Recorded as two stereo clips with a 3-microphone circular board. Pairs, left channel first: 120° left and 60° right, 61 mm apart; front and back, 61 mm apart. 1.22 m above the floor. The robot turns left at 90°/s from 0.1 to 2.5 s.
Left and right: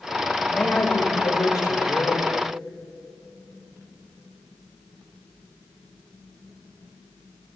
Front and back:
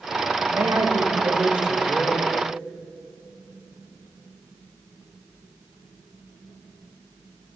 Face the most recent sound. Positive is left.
turn(degrees=25)